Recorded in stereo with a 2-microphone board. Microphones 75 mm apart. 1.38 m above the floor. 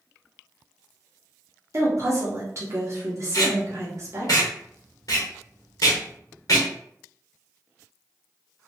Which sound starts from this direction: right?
A woman speaking, at 1.7 s.